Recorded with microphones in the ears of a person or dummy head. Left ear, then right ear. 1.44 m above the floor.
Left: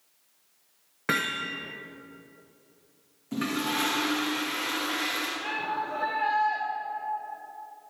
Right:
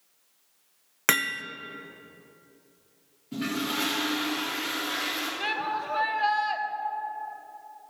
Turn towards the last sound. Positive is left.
turn(degrees=-55)  # may be behind; listen again after turning